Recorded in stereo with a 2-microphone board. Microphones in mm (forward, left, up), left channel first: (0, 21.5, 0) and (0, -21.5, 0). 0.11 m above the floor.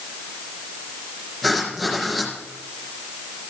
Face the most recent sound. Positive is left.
turn(degrees=0)  # may be behind; listen again after turning